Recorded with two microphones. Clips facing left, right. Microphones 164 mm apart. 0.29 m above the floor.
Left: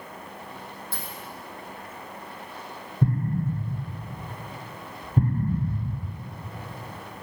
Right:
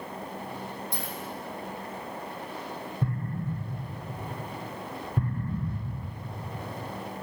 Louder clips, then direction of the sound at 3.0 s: Left 8 dB; 40° left (ahead or behind).